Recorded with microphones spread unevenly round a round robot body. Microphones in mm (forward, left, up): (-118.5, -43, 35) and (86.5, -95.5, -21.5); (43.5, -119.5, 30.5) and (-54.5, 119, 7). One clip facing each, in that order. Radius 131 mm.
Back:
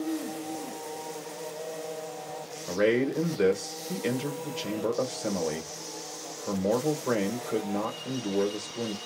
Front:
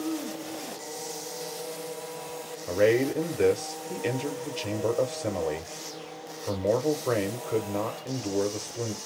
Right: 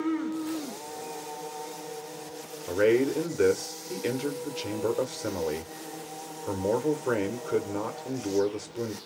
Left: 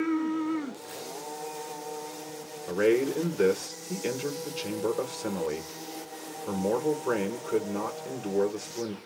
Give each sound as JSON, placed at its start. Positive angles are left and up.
{"t": 2.7, "sound": "a man speaking", "azimuth_deg": 35, "distance_m": 0.9}